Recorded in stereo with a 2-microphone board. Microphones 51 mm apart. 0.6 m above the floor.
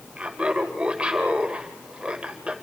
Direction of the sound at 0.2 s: 25° right (ahead or behind).